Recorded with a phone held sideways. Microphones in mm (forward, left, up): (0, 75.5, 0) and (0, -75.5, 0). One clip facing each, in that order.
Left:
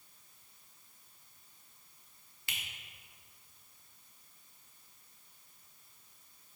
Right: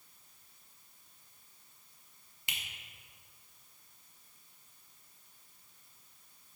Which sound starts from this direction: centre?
A finger snap, at 2.5 s.